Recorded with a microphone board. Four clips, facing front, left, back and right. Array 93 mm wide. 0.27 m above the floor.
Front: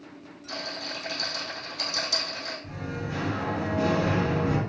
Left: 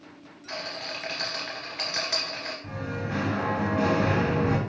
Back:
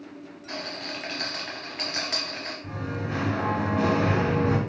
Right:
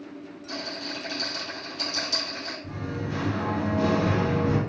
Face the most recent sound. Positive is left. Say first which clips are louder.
# even, back 5 dB
turn(degrees=130)